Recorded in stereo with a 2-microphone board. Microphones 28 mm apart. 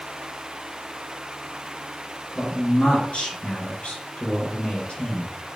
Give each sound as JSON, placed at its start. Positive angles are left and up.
{"t": 2.4, "sound": "a man speaking", "side_deg": 55, "distance_m": 3.0}